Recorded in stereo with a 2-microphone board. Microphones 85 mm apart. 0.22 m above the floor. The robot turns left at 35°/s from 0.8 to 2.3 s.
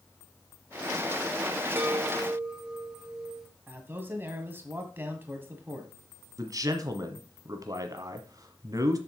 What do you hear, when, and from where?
1.8 s a chime: 25° right (ahead or behind), 1.8 m; by 3.5 s 10° right (ahead or behind), 1.8 m
3.7 s a man speaking: 25° right (ahead or behind), 1.7 m
6.4 s a man speaking: 45° right (ahead or behind), 1.3 m